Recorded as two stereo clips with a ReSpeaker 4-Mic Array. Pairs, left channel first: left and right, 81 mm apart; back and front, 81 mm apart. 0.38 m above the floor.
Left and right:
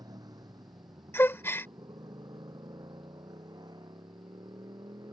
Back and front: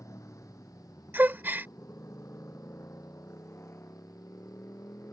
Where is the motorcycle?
125° right.